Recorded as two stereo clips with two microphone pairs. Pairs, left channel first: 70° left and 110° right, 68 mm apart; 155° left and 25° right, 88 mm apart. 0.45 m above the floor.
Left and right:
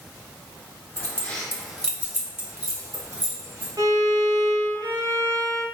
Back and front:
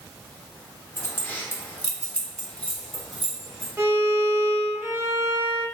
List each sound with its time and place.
1.0 s keys jangling: 110° left, 0.8 m; by 3.7 s 115° right, 1.2 m
3.8 s a violin: 85° right, 0.6 m